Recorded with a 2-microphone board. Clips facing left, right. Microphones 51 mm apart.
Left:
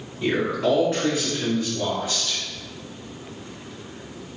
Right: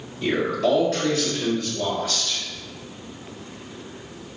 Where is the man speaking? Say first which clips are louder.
Even; 15° left (ahead or behind), 1.2 m; by 2.4 s 25° left (ahead or behind), 2.0 m.